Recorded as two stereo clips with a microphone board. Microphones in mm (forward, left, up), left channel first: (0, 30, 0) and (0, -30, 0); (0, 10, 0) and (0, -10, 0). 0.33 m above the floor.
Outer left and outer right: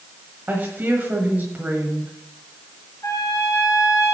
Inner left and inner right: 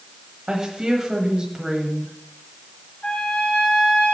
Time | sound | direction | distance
0.5 | a woman speaking | 30° right (ahead or behind) | 1.3 m
3.0 | a trumpet | 75° left (ahead or behind) | 3.5 m